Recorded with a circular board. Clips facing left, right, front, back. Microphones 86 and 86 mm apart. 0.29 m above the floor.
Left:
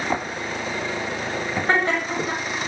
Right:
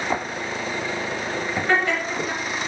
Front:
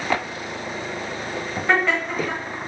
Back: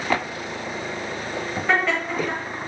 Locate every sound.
1.7 s laughter: 90° left, 1.3 m